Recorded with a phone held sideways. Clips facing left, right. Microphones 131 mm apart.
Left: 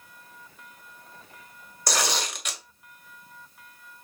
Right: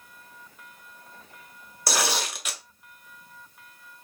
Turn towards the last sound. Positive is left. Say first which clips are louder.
# right 1 dB
turn(degrees=-5)  # may be behind; listen again after turning